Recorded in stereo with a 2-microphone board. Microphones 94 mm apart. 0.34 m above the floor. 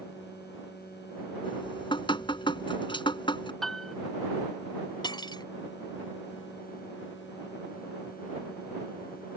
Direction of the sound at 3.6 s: 5° left (ahead or behind).